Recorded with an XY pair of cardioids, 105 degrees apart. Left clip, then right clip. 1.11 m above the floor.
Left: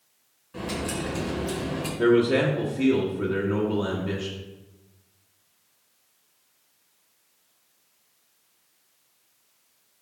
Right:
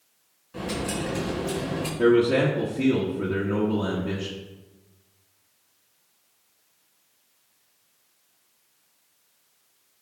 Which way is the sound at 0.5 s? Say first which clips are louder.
Right 1 dB; 5° right.